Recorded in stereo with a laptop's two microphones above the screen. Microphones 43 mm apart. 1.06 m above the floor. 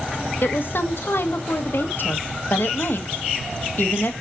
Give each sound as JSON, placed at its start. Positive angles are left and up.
{"t": 0.4, "sound": "a woman speaking", "side_deg": 60, "distance_m": 1.3}